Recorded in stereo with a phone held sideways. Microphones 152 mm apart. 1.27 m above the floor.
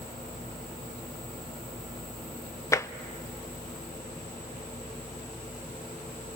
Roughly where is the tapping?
Centre.